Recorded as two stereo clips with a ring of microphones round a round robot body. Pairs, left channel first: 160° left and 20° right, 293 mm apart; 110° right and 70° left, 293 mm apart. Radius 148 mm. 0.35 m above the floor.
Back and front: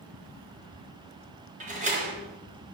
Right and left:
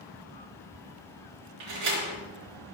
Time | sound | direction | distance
1.6 | a door slam | 45° left | 3.5 m